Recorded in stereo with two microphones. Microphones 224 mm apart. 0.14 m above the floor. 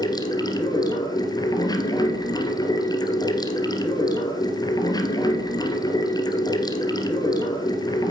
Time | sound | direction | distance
0.0 | running water | 20° left (ahead or behind) | 1.9 m